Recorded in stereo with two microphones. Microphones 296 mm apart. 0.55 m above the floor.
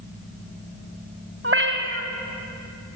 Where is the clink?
I don't hear a clink.